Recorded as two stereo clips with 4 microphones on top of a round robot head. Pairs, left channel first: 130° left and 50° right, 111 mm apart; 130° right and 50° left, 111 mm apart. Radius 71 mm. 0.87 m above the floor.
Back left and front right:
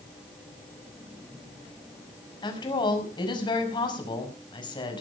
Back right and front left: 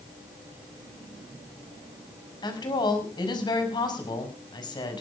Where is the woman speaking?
Straight behind, 5.5 m.